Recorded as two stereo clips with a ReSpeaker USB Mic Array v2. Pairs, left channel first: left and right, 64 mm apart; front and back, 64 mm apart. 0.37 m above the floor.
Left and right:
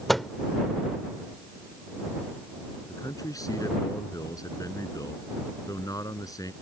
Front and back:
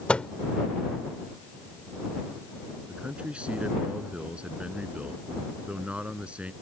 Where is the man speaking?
110° left.